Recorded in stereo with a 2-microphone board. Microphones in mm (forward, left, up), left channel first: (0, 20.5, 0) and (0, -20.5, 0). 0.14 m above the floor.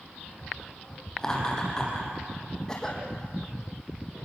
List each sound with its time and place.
1.2 s laughter: 15° left (ahead or behind), 5 m
2.7 s a cough: 15° left (ahead or behind), 5 m